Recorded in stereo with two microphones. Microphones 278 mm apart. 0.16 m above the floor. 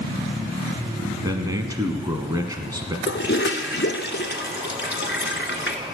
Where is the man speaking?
15° right (ahead or behind), 1.1 m.